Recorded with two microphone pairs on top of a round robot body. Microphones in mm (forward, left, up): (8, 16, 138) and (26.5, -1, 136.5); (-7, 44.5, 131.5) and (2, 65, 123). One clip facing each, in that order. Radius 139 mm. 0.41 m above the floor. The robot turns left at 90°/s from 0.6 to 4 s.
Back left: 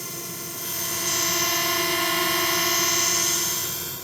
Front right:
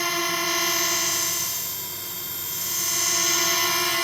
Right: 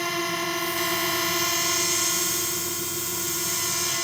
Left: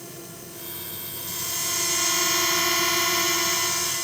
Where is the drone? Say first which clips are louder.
Front right 11 dB, right 15 dB; 85° right; by 4.0 s 30° right.